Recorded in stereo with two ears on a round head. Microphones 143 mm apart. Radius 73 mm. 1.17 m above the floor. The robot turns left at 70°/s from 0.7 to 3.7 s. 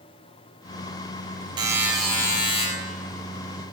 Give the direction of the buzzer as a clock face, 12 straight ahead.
5 o'clock.